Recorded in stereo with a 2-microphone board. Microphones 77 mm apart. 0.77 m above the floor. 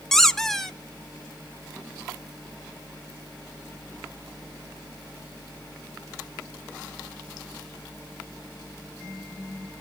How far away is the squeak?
About 0.7 m.